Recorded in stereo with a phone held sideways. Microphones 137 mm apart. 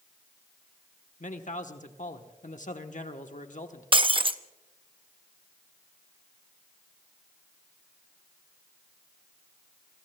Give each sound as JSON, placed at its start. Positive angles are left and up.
{"t": 1.2, "sound": "a man speaking", "side_deg": 70, "distance_m": 1.1}
{"t": 3.9, "sound": "breaking glass", "side_deg": -40, "distance_m": 0.7}